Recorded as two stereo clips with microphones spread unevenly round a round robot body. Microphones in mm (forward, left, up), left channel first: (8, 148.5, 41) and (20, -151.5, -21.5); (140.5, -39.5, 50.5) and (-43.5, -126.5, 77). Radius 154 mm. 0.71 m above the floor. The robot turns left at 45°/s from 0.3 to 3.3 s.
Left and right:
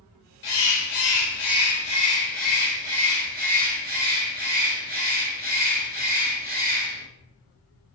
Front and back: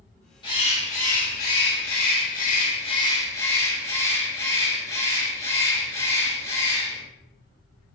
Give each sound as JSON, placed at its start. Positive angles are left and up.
{"t": 0.4, "sound": "a bird", "azimuth_deg": 85, "distance_m": 1.2}